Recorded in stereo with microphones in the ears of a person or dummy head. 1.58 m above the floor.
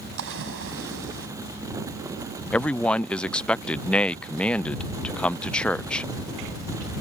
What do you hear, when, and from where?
0.2 s a splash: 65° right (ahead or behind)
2.5 s a man speaking: 10° left (ahead or behind)